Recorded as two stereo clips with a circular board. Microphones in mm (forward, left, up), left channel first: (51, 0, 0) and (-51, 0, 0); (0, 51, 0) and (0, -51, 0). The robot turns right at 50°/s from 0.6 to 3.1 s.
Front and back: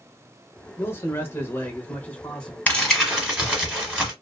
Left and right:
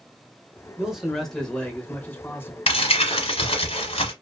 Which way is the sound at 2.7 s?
75° left.